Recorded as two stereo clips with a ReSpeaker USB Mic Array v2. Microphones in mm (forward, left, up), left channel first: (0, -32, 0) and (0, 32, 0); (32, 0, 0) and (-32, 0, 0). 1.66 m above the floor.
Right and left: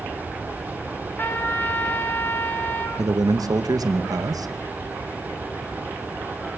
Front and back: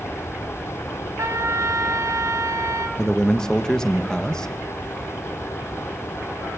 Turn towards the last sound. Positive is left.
turn(degrees=80)